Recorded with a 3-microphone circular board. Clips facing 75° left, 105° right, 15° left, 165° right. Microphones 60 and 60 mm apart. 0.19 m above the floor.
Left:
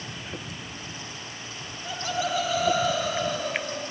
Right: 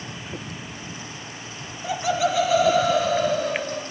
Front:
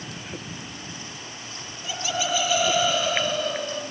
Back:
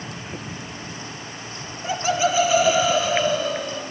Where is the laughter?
115° right, 5 m; by 3.8 s 80° right, 4.5 m.